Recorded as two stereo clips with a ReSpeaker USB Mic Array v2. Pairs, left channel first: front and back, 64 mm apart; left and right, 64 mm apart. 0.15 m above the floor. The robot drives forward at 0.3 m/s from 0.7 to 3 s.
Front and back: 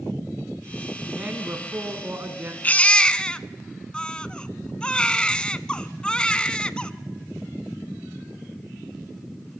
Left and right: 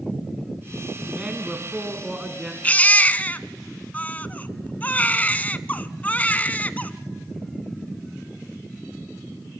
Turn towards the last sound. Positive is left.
turn(degrees=60)